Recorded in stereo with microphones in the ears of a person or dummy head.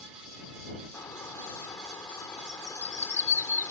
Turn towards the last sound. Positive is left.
turn(degrees=20)  # may be behind; listen again after turning